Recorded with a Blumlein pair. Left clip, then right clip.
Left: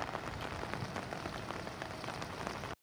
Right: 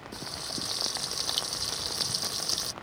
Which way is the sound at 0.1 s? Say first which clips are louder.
Right 5 dB; 40° right.